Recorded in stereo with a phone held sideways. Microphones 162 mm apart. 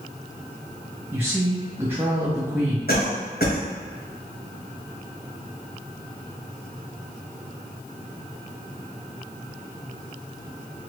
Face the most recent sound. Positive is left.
turn(degrees=70)  # may be behind; listen again after turning